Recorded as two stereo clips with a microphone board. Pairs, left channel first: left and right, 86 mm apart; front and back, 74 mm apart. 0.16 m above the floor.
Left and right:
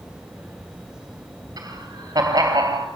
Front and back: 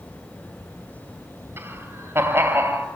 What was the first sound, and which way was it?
Laughter, 130° right.